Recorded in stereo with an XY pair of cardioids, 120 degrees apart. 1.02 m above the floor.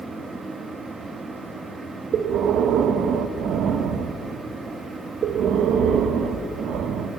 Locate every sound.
0.0 s a fan: 30° right, 1.4 m
2.1 s breathing: 65° right, 0.8 m